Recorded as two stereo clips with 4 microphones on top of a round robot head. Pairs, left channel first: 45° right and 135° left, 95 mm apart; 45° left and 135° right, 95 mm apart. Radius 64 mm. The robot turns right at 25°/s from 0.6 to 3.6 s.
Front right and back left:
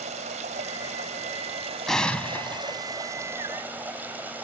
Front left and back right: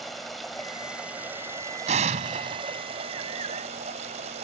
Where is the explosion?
135° right; by 2.8 s 110° right.